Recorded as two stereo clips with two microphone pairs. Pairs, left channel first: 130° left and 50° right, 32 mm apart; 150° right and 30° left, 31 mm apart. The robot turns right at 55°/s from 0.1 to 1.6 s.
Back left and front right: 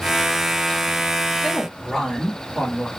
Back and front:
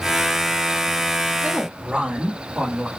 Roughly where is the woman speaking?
Ahead left.